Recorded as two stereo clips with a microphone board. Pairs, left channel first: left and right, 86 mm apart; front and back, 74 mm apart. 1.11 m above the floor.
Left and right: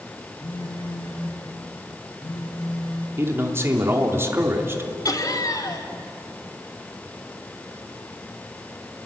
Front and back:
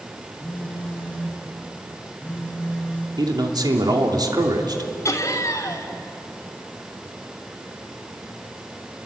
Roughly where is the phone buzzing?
Left.